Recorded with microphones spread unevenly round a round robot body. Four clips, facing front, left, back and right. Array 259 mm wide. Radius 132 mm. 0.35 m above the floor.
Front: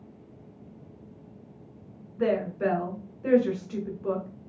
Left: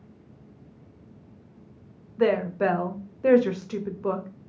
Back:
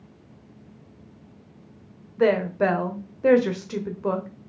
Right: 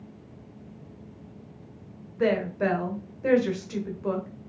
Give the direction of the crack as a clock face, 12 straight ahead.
No crack in this recording.